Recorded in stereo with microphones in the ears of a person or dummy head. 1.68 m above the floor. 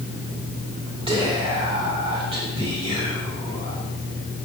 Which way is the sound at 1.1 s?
30° right (ahead or behind).